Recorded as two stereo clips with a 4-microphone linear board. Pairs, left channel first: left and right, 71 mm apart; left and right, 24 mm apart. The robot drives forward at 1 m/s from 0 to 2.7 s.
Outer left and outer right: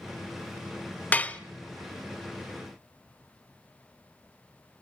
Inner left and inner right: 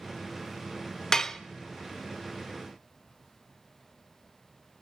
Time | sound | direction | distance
1.1 | dishes clattering | 20° left (ahead or behind) | 0.5 m